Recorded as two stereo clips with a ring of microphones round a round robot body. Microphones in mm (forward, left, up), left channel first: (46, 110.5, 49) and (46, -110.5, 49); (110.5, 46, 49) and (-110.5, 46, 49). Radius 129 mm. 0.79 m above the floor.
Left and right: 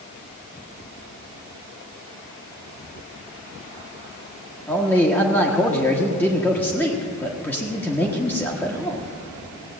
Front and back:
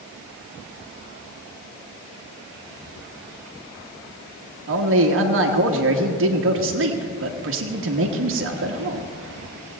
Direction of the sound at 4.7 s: 170° left.